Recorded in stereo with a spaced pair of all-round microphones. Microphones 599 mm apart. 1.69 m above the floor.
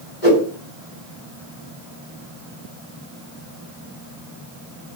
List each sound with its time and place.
0.2 s a whoosh: 60° left (ahead or behind), 1.7 m